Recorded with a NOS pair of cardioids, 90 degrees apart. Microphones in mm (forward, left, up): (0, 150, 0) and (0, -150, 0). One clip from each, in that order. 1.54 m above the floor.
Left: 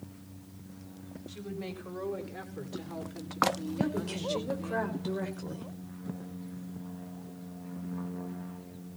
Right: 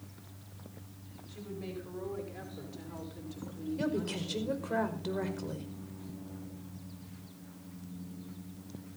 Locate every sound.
1.3 s a woman speaking: 50° left, 5.5 m; by 4.8 s 30° left, 6.5 m
3.8 s a woman speaking: 5° right, 5 m